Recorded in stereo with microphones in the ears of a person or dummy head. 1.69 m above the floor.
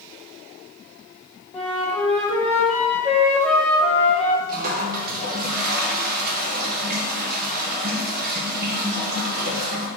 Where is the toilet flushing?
55° right (ahead or behind), 1.3 m.